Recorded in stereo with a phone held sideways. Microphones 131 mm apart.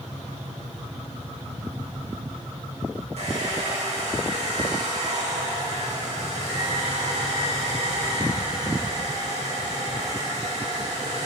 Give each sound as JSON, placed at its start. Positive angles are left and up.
{"t": 3.2, "sound": "a hair dryer", "side_deg": -60, "distance_m": 2.0}